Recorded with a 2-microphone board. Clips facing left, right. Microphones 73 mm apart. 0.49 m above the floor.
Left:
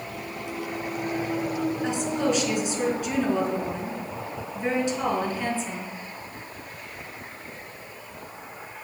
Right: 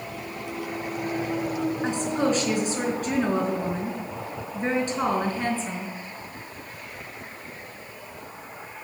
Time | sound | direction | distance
1.8 | a woman speaking | 45° right (ahead or behind) | 5 m